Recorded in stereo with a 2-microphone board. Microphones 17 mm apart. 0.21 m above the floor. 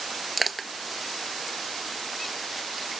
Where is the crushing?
Centre (ahead or behind).